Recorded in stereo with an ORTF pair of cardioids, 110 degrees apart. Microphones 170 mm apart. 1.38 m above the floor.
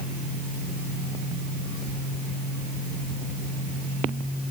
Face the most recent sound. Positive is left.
No sound to turn to.